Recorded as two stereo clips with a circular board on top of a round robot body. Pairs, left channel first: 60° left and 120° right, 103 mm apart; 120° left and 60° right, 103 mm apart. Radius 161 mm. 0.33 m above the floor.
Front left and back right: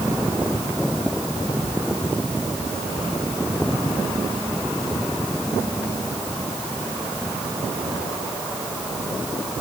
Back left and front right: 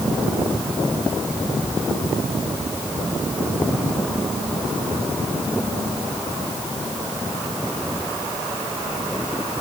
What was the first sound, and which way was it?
Only background noise.